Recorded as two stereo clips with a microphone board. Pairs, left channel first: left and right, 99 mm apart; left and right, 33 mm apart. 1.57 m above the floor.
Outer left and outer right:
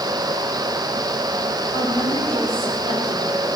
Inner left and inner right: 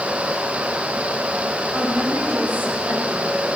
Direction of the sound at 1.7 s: 75° right (ahead or behind).